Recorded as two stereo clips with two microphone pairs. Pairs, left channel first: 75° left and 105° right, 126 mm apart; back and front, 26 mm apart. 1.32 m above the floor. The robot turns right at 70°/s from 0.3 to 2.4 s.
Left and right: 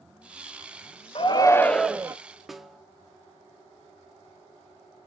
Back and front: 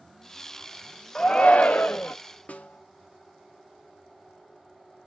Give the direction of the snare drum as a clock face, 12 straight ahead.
6 o'clock.